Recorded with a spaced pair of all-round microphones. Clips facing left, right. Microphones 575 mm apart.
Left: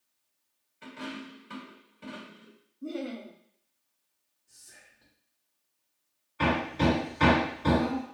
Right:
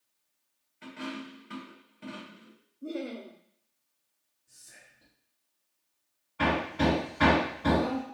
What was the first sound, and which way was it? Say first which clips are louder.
A dropped coin: right 1 dB; 5° right (ahead or behind).